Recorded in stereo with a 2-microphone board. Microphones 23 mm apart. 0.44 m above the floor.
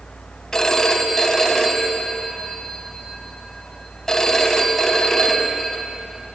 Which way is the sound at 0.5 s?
20° left (ahead or behind).